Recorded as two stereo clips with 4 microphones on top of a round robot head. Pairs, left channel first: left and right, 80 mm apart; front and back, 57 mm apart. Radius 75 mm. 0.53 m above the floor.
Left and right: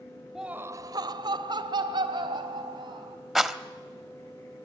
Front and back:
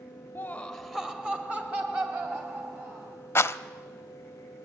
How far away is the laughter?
About 0.8 m.